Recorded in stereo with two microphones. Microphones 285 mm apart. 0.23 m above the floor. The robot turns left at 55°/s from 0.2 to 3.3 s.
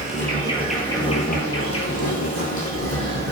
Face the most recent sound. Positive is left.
turn(degrees=40)